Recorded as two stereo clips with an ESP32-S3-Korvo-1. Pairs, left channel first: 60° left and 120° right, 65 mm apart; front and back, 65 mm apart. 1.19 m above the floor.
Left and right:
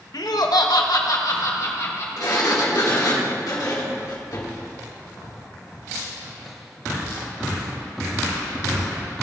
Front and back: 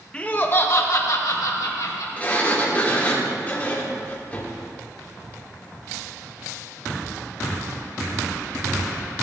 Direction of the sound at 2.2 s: 65° left.